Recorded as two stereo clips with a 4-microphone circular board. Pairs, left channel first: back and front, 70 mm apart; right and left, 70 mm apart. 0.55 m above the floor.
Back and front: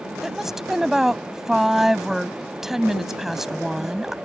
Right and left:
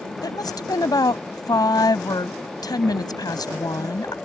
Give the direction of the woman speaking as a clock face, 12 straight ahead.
3 o'clock.